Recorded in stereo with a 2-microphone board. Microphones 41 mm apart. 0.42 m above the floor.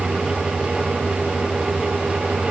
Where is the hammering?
No hammering in this recording.